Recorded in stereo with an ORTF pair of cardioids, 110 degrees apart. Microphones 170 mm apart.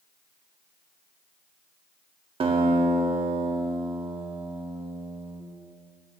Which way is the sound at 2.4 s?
30° right.